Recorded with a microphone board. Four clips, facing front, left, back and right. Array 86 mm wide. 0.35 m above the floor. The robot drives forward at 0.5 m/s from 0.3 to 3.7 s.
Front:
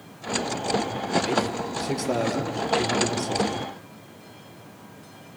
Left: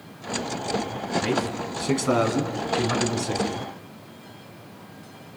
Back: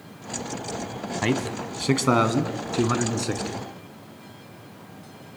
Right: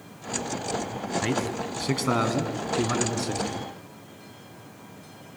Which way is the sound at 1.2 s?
170° right.